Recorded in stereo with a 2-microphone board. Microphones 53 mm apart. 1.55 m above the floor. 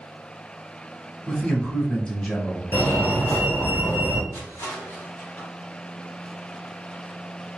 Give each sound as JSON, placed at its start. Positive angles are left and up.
{"t": 1.3, "sound": "a man speaking", "side_deg": 15, "distance_m": 1.5}
{"t": 2.7, "sound": "a fire alarm", "side_deg": 40, "distance_m": 1.4}
{"t": 4.3, "sound": "crushing", "side_deg": 60, "distance_m": 1.1}